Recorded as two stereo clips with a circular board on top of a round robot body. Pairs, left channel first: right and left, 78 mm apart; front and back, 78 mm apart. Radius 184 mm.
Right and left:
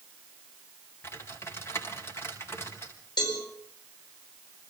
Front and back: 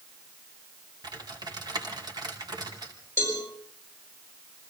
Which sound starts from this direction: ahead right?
A cowbell, at 3.2 s.